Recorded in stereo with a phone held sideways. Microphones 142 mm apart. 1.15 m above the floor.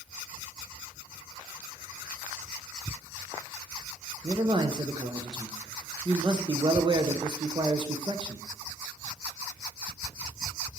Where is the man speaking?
30° right (ahead or behind), 0.8 m.